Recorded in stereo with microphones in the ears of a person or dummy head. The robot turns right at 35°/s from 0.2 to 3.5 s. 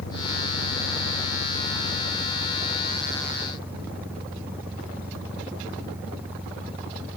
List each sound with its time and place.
0.0 s an engine running: 70° left; by 7.2 s 170° right